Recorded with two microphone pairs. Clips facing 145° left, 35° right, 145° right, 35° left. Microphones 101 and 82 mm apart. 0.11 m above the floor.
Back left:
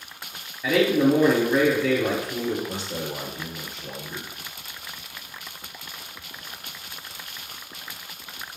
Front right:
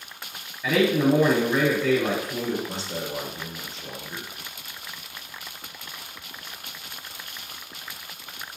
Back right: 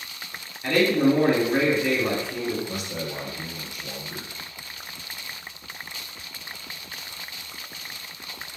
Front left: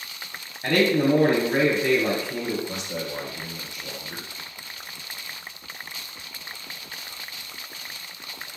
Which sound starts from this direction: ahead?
A man speaking, at 2.7 s.